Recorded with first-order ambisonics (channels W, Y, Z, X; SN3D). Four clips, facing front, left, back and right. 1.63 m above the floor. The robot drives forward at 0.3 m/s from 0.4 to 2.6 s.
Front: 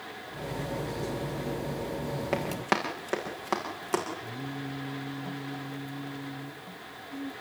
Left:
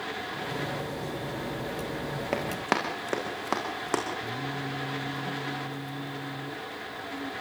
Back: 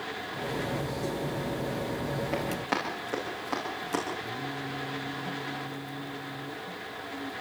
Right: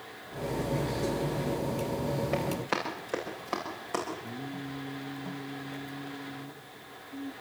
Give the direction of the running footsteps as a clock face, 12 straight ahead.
10 o'clock.